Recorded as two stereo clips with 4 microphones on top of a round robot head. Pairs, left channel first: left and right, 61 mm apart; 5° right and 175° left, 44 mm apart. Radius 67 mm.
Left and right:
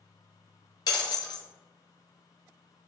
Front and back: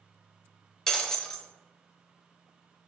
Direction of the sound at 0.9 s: 65° left.